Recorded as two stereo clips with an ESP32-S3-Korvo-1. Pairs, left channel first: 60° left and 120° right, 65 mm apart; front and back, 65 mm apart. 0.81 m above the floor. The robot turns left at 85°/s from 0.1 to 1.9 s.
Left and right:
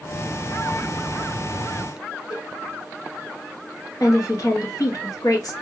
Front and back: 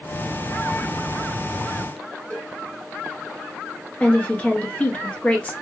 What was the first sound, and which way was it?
A cowbell, 65° left.